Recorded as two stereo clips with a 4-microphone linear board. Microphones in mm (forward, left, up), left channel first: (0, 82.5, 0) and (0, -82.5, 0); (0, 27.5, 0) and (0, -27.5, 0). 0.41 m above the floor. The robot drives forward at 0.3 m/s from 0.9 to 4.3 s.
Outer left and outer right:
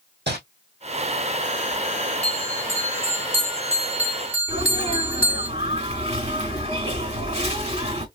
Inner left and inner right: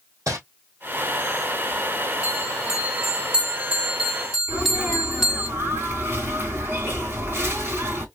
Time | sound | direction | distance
0.3 | crumpling | 85° right | 2.5 m
2.2 | a bell | 15° right (ahead or behind) | 1.0 m
4.5 | a sneeze | 40° right (ahead or behind) | 3 m